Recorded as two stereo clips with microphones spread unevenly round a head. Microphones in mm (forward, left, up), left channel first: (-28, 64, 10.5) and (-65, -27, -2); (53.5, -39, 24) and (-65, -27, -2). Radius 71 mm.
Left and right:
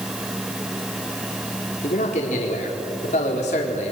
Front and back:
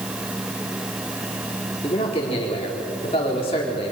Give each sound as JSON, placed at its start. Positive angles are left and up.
{"t": 1.8, "sound": "a man speaking", "azimuth_deg": 50, "distance_m": 4.0}